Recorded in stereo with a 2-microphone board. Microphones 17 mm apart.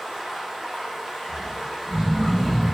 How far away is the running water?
About 1.3 m.